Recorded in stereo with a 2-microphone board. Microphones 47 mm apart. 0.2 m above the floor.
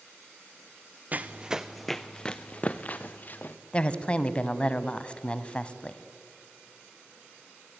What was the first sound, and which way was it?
Running footsteps, 35° right (ahead or behind).